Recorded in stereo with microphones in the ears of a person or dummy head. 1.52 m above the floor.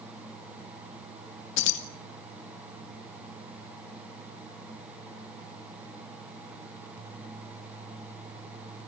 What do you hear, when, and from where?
1.6 s keys jangling: 70° left (ahead or behind), 1.9 m